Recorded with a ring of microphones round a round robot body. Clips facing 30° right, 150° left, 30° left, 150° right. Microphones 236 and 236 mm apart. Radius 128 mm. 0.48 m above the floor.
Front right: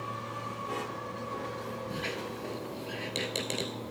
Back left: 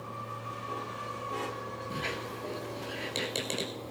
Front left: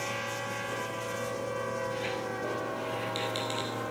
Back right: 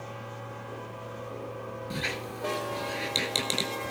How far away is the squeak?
About 0.8 m.